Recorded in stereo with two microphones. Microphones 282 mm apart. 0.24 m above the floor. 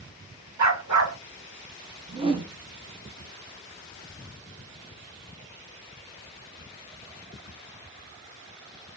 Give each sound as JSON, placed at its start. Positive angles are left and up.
{"t": 0.6, "sound": "a dog barking", "side_deg": -75, "distance_m": 1.0}
{"t": 2.1, "sound": "a whoosh", "side_deg": -20, "distance_m": 0.7}